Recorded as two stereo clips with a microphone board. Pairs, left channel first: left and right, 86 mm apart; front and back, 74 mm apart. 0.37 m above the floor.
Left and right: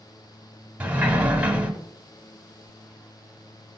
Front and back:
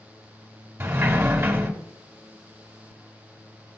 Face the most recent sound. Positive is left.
turn(degrees=-150)